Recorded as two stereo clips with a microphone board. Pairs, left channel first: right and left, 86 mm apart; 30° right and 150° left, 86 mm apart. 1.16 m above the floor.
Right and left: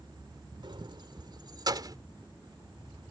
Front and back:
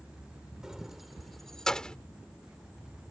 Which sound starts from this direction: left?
Keys jangling, at 0.6 s.